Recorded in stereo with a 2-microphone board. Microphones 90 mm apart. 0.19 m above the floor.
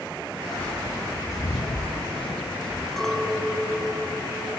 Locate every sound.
0.6 s footsteps: 15° left (ahead or behind), 1.5 m; by 2.9 s 65° left (ahead or behind), 1.2 m
3.0 s a clink: 5° left (ahead or behind), 0.7 m